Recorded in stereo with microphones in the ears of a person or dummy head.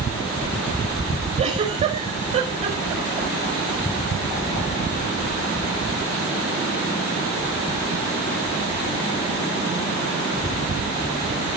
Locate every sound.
1.4 s a giggle: 35° right (ahead or behind), 5 m